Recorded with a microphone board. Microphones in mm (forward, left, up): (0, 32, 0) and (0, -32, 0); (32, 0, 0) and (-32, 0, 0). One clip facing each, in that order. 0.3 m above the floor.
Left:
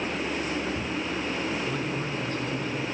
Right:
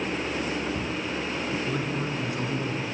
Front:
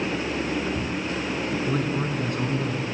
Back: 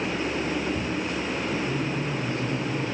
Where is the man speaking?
5° right, 3.5 m; by 3.0 s 20° right, 3.5 m.